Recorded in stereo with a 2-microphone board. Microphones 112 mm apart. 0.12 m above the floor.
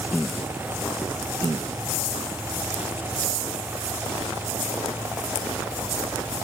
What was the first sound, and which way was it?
Only background noise.